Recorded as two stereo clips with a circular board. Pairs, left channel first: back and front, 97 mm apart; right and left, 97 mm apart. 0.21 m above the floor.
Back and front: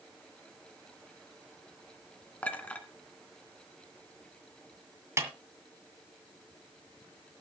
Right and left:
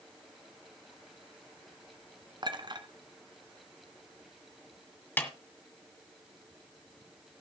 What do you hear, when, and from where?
2.4 s a clink: 105° left, 1.7 m
5.2 s a snare drum: 35° right, 2.0 m